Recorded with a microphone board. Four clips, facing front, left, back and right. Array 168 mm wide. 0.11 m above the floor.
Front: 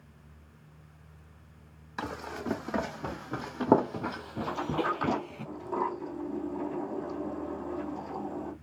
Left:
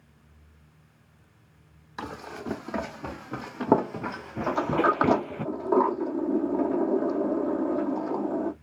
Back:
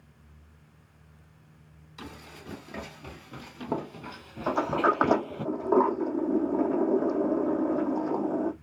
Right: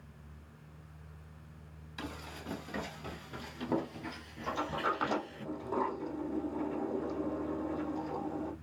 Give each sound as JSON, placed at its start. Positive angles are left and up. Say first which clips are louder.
{"t": 2.0, "sound": "running footsteps", "louder": "left 8 dB, front 9 dB", "azimuth_deg": 40, "distance_m": 2.5}
{"t": 4.5, "sound": "a sliding door", "louder": "left 10 dB, back 6 dB", "azimuth_deg": 140, "distance_m": 1.5}